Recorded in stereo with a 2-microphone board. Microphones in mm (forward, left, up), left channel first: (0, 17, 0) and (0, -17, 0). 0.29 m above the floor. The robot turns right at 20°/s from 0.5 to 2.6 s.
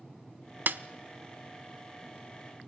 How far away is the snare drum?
About 0.7 m.